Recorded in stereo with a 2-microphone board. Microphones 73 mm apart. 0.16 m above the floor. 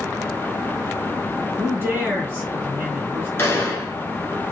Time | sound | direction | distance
1.6 | a man speaking | 30° right (ahead or behind) | 2 m
3.4 | a gunshot | 30° left (ahead or behind) | 1.3 m